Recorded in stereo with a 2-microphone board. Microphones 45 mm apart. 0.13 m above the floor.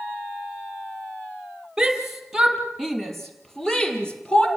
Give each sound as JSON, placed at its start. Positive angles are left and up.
{"t": 1.8, "sound": "a shout", "side_deg": -10, "distance_m": 3.5}